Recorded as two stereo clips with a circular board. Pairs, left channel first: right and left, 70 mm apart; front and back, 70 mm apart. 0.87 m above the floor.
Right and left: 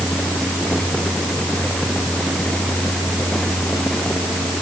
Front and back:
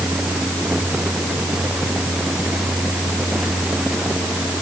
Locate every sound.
Only background noise.